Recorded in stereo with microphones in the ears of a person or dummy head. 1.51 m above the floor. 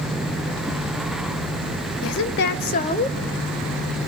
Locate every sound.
2.0 s a woman speaking: 70° left (ahead or behind), 1.0 m; by 4.0 s 5° right (ahead or behind), 1.4 m